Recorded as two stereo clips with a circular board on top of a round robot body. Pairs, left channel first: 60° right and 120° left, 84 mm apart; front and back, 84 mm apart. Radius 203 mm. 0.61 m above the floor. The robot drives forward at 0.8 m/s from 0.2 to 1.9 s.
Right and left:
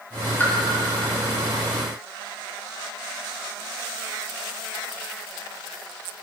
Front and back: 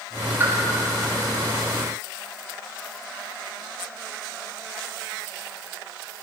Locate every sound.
0.4 s a pop: 120° right, 1.7 m; by 0.5 s 125° right, 1.8 m